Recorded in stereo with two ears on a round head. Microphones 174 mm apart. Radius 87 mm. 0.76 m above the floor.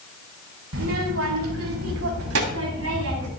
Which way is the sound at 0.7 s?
70° right (ahead or behind).